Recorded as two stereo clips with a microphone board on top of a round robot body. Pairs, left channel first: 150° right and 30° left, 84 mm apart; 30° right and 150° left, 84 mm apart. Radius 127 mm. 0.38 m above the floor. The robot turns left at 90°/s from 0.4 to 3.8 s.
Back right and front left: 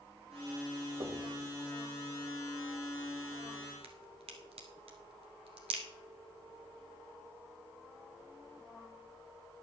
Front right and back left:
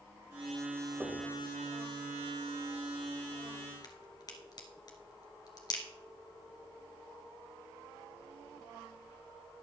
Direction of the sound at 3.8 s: 15° left.